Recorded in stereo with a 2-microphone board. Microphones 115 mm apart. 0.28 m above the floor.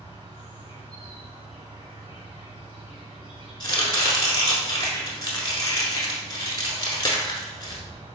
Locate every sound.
0.0 s an insect: 50° right (ahead or behind), 1.2 m
3.6 s chopping: 40° left (ahead or behind), 0.7 m